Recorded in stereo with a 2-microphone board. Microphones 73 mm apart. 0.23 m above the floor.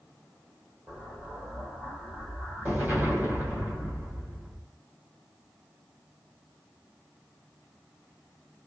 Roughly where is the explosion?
Right.